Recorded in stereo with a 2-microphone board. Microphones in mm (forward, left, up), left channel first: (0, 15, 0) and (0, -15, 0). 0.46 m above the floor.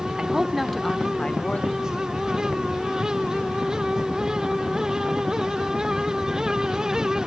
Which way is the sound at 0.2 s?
25° right (ahead or behind).